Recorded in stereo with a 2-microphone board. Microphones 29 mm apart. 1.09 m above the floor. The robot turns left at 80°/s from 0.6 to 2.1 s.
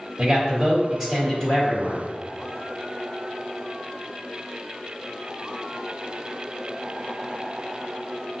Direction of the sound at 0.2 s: 150° right.